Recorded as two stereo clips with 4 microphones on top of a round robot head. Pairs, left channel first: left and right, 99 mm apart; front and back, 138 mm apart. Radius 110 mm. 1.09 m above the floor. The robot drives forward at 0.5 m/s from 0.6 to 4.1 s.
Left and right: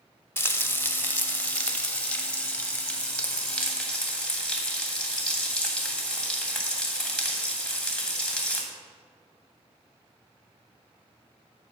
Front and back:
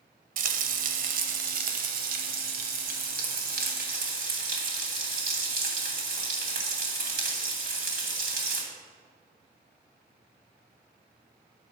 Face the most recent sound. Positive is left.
turn(degrees=175)